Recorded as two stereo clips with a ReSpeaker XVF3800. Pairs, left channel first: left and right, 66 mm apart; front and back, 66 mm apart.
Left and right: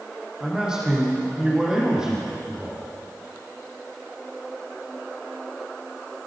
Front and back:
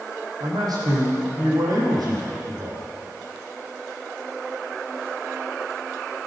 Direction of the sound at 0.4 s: 170° right.